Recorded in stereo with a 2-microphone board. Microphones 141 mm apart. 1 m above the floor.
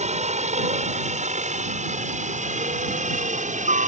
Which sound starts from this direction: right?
A helicopter, at 0.0 s.